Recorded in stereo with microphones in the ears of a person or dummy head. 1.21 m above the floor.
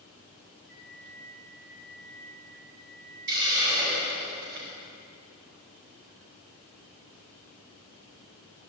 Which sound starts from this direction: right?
A hiss, at 3.3 s.